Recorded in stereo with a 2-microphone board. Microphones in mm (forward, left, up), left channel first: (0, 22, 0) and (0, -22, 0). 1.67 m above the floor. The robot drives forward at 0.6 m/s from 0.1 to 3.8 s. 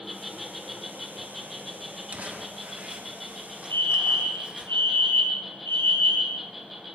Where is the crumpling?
40° right (ahead or behind), 1.7 m; by 4.7 s 30° right (ahead or behind), 2.5 m.